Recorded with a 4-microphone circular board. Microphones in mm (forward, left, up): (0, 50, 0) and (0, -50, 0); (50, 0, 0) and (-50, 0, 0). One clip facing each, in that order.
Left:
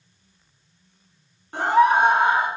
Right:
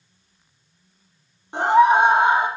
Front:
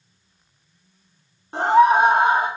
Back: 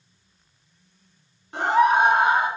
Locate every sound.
1.5 s a scream: 35° right, 1.5 m